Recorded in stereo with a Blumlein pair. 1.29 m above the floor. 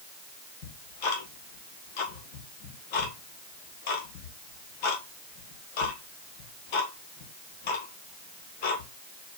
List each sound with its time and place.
0.6 s ticking: 45° left, 1.2 m